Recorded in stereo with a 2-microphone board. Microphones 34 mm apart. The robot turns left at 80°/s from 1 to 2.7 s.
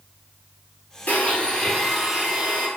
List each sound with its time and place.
1.1 s a blender: 60° left, 0.9 m; by 2.7 s 70° right, 0.9 m